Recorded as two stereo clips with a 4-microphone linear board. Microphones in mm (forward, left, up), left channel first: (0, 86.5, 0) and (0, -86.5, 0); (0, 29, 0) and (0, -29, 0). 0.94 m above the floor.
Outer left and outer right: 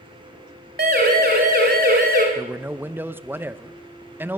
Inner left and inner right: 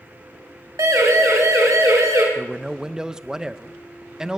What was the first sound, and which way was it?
A siren, 65° right (ahead or behind).